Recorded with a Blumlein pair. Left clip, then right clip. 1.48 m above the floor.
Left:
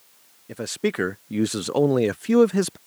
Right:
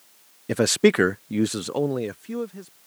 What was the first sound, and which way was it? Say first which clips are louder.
A man speaking: right 8 dB; 30° right.